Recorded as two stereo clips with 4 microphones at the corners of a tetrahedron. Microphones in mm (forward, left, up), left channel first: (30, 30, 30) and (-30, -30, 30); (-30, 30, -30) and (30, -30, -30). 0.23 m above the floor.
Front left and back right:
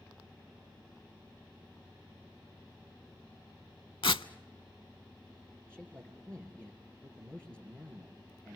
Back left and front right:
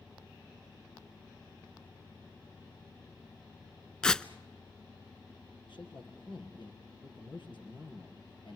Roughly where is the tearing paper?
Ahead left.